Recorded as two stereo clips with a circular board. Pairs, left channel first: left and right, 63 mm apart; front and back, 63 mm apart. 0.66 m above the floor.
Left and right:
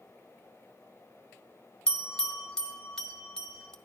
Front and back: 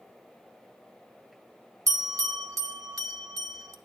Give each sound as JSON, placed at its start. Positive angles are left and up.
{"t": 1.9, "sound": "a bell", "azimuth_deg": 165, "distance_m": 0.6}